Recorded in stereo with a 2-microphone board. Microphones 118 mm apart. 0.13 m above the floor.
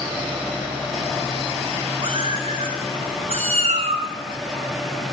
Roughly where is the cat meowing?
Right.